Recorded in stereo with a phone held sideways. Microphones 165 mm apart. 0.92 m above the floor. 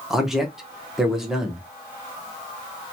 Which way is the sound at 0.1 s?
5° right (ahead or behind).